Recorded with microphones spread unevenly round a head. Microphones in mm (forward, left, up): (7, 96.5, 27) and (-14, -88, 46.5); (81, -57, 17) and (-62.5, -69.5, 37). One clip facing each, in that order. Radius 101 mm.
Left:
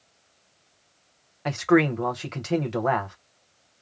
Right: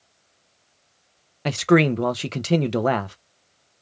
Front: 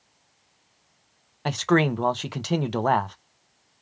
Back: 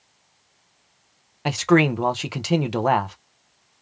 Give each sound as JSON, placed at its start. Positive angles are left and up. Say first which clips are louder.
{"t": 1.4, "sound": "a man speaking", "louder": "right 2 dB, back 4 dB", "azimuth_deg": -90, "distance_m": 0.7}